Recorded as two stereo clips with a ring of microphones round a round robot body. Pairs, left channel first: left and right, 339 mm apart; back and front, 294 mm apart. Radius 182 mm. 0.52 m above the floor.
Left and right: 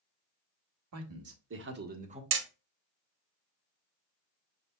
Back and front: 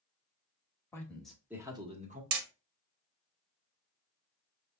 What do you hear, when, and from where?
0.9 s a man speaking: 100° right, 1.3 m; by 2.2 s 35° right, 1.1 m
2.3 s hammering: 35° right, 0.9 m